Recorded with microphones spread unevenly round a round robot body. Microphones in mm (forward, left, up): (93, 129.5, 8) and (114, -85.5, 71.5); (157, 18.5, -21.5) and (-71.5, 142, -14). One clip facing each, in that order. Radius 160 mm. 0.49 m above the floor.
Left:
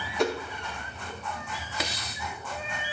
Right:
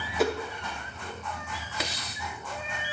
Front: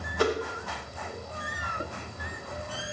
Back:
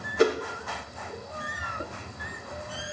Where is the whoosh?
145° left, 0.6 m.